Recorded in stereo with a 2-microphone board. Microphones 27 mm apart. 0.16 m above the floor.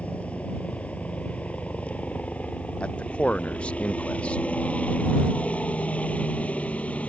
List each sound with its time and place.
0.0 s a helicopter: 55° left (ahead or behind)
2.8 s a man speaking: 45° left (ahead or behind)